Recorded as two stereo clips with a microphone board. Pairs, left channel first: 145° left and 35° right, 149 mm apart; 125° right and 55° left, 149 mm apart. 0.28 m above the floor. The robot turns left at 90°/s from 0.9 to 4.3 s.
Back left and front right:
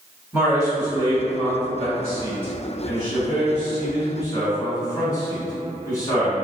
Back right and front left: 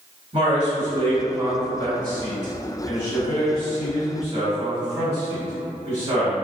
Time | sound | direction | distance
0.3 | a man speaking | 50° left | 1.3 m